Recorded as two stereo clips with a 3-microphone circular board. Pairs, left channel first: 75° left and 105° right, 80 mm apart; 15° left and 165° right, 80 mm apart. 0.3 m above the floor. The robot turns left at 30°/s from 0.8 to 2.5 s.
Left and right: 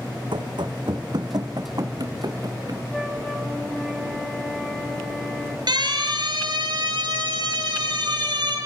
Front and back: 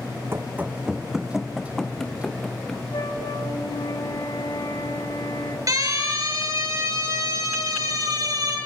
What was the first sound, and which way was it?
Running footsteps, 110° right.